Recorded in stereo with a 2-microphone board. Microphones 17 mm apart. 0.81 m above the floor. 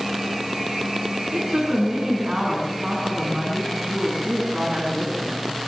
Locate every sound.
1.3 s a woman speaking: 60° right (ahead or behind), 7 m